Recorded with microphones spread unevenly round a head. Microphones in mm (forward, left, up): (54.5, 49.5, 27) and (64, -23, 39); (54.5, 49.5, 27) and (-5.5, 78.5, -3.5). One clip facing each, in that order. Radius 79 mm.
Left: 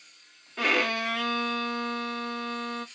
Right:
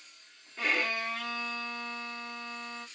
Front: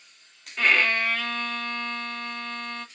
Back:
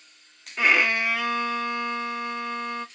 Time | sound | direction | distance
0.6 | a violin | 90° left | 0.7 m